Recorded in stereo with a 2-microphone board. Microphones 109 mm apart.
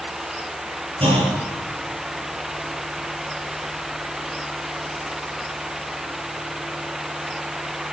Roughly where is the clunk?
Right.